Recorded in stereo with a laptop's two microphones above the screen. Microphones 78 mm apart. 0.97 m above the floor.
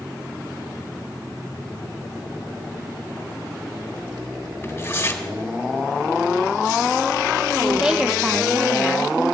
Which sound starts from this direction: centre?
A woman speaking, at 7.6 s.